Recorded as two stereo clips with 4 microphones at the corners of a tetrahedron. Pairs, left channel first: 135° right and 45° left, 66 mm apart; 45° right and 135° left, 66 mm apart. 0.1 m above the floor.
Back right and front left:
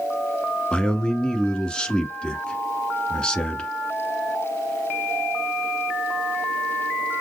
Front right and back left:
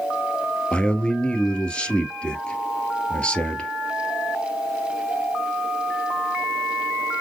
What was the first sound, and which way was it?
A man speaking, 85° right.